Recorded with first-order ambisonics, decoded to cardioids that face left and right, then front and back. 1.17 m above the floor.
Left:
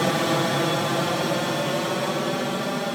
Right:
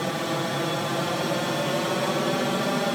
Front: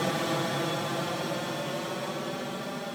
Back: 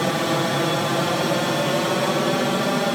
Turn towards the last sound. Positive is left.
turn(degrees=-170)